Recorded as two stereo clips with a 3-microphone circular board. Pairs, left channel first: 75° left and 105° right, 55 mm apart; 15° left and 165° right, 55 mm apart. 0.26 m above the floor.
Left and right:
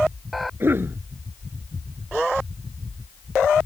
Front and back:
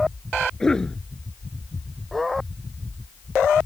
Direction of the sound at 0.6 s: 60° right.